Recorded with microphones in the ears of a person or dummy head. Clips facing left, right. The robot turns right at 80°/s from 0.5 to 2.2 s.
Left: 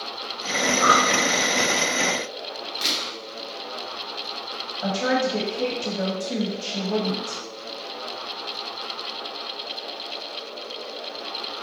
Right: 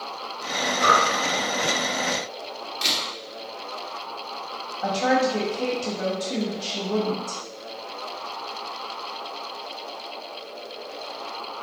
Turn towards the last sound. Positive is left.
turn(degrees=40)  # may be behind; listen again after turning